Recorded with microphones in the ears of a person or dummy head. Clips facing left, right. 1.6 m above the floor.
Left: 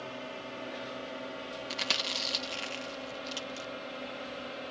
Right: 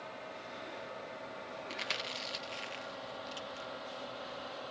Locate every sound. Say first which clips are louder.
0.0 s a drone: left 5 dB; 50° left (ahead or behind); by 4.7 s 30° left (ahead or behind)
1.7 s chewing: left 4 dB; 70° left (ahead or behind)